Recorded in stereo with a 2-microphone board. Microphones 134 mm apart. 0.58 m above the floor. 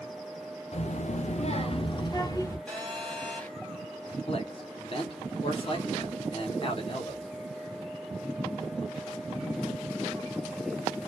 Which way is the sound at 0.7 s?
55° left (ahead or behind).